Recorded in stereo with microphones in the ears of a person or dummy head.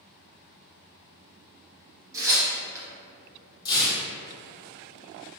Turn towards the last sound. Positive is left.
turn(degrees=25)  # may be behind; listen again after turning